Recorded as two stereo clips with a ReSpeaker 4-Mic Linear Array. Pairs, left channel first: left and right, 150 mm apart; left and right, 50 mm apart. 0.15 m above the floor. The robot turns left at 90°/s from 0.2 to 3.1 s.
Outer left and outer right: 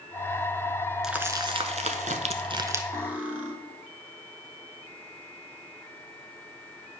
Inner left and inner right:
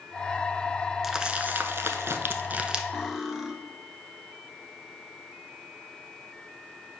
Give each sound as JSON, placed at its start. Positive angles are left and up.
{"t": 1.0, "sound": "crumpling", "side_deg": 0, "distance_m": 0.7}
{"t": 2.9, "sound": "cutlery clinking", "side_deg": -20, "distance_m": 1.2}